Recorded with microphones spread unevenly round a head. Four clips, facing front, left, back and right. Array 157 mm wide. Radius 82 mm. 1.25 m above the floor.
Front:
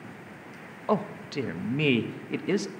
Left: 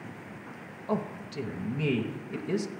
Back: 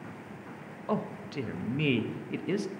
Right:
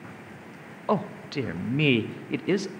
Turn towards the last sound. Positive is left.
turn(degrees=-50)